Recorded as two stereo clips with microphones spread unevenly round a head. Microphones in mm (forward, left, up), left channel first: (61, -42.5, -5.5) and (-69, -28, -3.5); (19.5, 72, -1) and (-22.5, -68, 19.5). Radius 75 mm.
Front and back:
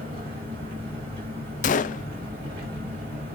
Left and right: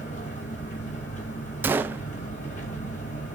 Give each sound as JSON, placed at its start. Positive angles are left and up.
{"t": 0.0, "sound": "an engine running", "azimuth_deg": 120, "distance_m": 4.5}
{"t": 1.6, "sound": "a gunshot", "azimuth_deg": -25, "distance_m": 0.6}